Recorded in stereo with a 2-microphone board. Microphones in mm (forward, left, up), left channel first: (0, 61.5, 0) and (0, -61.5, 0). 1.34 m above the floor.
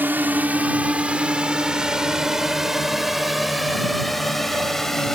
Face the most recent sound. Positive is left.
turn(degrees=5)  # may be behind; listen again after turning